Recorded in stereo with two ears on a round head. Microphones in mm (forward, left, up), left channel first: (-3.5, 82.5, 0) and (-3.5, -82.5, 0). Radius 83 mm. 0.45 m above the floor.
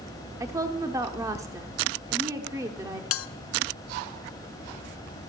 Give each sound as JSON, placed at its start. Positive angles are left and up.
{"t": 0.4, "sound": "a woman speaking", "side_deg": -15, "distance_m": 0.7}
{"t": 3.1, "sound": "a bell", "side_deg": 80, "distance_m": 0.6}